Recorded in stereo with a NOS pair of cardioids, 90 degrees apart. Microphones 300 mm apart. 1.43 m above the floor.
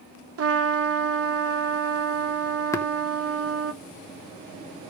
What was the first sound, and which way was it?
A trumpet, 50° right.